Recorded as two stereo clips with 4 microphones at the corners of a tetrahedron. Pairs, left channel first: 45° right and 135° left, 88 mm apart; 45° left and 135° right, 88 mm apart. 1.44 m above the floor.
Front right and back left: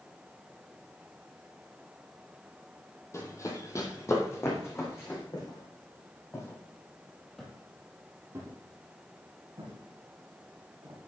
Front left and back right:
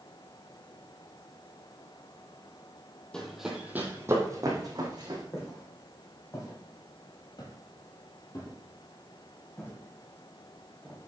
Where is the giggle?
I don't hear a giggle.